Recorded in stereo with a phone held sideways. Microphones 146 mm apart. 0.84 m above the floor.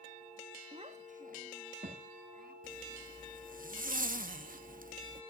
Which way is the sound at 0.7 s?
40° right (ahead or behind).